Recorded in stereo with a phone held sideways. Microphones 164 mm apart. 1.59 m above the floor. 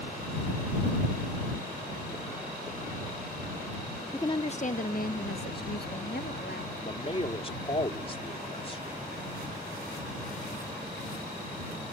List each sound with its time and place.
4.1 s a woman speaking: 15° left (ahead or behind); by 6.8 s 80° left
6.8 s a man speaking: 35° left (ahead or behind)